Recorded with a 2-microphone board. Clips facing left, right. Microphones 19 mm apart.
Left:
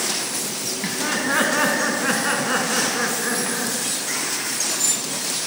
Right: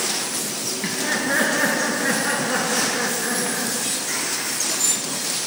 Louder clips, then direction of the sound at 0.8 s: Even; 45° left (ahead or behind).